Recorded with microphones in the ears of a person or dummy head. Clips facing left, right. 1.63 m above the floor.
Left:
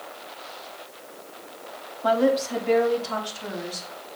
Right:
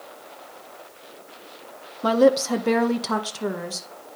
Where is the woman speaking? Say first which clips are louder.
Right 4 dB; 55° right (ahead or behind), 0.9 m; by 3.9 s 70° right (ahead or behind), 1.7 m.